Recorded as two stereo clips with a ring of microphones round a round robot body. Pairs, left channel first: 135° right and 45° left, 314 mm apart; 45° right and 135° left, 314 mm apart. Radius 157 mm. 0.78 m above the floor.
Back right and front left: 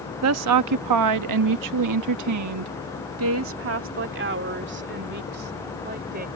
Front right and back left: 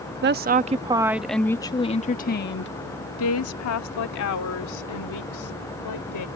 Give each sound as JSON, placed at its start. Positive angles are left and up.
{"t": 0.2, "sound": "a woman speaking", "azimuth_deg": 85}